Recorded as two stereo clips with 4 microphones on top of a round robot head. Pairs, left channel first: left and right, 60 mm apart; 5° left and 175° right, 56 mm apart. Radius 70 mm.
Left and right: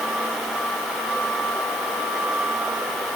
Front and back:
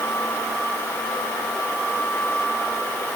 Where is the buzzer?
No buzzer in this recording.